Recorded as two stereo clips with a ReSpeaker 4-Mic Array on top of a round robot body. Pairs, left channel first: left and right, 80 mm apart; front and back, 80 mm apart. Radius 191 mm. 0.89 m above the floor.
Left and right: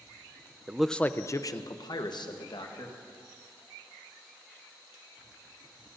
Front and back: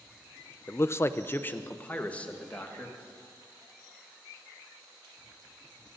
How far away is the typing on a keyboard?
No typing on a keyboard in this recording.